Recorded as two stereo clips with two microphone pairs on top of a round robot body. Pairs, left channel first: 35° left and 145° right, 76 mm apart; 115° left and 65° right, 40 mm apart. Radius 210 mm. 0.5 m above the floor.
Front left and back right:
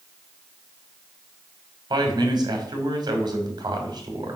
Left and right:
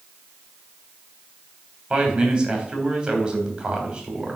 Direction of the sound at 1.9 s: 135° right.